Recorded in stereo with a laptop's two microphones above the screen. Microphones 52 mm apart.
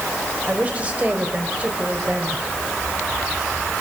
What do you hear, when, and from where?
0.5 s a woman speaking: 25° right (ahead or behind), 4 m